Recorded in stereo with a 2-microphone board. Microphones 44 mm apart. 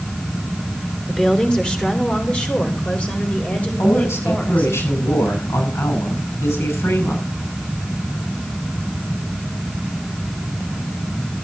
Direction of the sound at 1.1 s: 15° left (ahead or behind).